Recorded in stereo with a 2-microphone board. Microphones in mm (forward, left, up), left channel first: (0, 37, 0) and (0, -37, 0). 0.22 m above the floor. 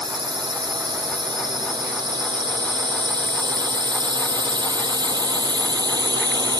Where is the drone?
85° right; by 6.6 s 75° right (ahead or behind).